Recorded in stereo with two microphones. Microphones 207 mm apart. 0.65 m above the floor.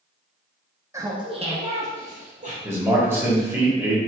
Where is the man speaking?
10° right (ahead or behind), 1.0 m.